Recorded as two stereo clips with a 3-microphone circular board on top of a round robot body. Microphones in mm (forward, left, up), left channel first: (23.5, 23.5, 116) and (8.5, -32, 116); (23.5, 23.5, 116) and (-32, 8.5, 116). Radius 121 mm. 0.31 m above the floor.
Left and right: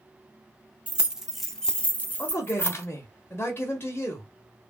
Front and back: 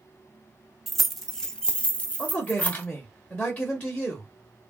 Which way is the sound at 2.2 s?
60° left.